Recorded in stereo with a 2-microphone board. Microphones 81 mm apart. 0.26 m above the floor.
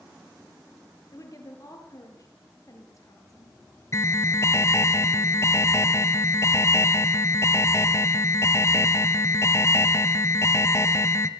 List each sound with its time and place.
1.1 s a woman speaking: 45° left (ahead or behind), 6 m
3.9 s an alarm: 35° left (ahead or behind), 1.0 m